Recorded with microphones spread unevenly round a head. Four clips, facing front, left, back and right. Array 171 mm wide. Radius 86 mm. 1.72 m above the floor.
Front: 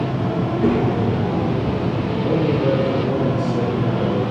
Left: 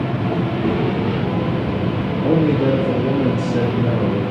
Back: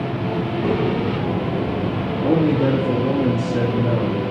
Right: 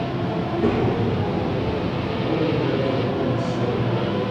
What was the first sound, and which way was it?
A child speaking, 40° right.